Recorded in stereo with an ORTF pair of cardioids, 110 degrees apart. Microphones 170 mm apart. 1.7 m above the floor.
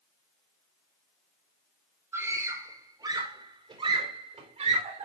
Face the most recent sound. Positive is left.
turn(degrees=-45)